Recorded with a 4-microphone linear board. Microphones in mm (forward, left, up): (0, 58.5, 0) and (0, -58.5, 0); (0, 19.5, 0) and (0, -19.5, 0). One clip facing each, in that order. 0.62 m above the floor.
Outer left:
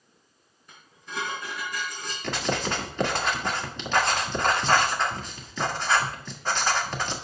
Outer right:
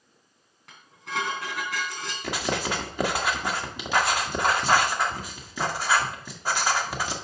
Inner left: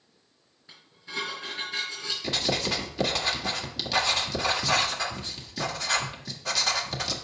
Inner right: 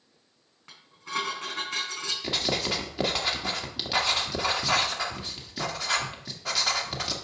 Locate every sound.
0.7 s dishes clattering: 85° right, 3.5 m
2.2 s writing: 10° right (ahead or behind), 1.5 m